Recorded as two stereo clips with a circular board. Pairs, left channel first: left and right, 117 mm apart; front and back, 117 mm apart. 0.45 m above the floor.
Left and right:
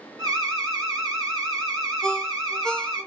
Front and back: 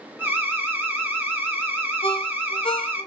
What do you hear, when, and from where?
0.2 s an alarm: 120° right, 1.3 m
2.0 s a ringtone: 5° left, 0.7 m